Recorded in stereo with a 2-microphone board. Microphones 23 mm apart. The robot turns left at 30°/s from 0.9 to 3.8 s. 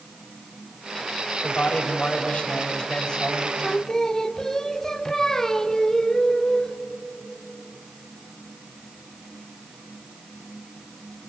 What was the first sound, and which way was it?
A man speaking, 95° left.